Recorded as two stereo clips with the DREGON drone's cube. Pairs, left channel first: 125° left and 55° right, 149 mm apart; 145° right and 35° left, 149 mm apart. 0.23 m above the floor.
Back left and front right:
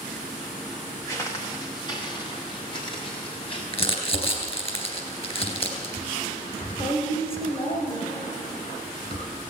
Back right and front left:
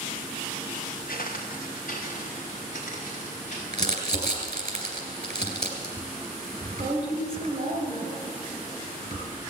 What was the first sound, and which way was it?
Footsteps, 165° right.